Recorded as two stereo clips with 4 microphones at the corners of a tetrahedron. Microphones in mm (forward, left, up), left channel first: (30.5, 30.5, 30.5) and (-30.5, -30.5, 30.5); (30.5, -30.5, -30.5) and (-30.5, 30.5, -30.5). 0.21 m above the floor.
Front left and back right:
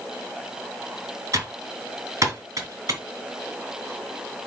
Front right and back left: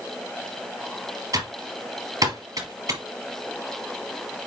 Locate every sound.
1.3 s typing on a keyboard: 175° left, 2.5 m